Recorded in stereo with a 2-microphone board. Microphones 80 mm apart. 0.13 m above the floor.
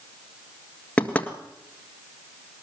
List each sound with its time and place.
1.0 s knocking: 15° left (ahead or behind), 1.8 m